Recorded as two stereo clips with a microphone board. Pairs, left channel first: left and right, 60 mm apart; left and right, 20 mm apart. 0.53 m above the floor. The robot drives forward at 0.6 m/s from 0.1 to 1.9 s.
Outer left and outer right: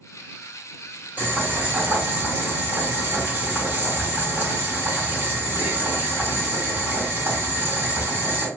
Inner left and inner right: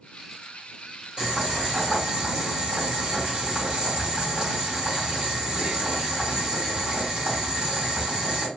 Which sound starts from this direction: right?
Boiling, at 1.2 s.